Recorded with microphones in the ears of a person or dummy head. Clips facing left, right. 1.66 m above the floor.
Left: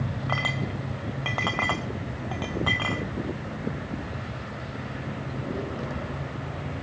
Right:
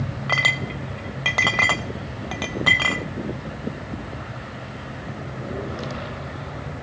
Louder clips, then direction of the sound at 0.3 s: Right 1 dB; 25° right (ahead or behind).